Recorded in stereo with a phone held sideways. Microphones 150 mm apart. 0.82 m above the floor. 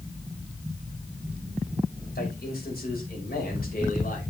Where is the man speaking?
80° left, 5 m; by 4.3 s 65° left (ahead or behind), 4.5 m.